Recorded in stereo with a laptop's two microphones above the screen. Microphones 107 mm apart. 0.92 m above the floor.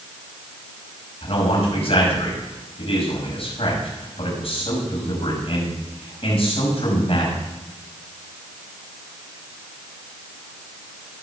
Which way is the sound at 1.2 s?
60° left (ahead or behind).